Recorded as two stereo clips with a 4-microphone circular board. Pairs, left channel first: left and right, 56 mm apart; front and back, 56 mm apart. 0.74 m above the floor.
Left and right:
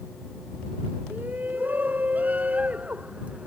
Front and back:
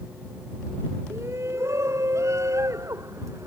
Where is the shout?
145° right; by 3.5 s 160° right.